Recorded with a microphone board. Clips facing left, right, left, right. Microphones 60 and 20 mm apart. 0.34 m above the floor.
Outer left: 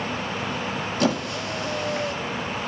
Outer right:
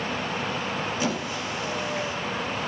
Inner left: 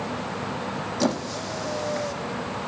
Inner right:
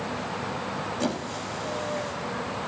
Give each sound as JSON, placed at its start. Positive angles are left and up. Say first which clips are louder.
{"t": 1.0, "sound": "a squeak", "louder": "outer left 4 dB, inner left 7 dB", "side_deg": 75, "distance_m": 2.0}